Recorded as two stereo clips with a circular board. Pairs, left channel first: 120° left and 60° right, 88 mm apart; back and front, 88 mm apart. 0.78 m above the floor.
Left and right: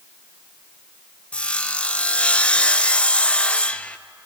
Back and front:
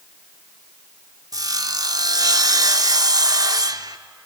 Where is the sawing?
45° left, 0.6 m.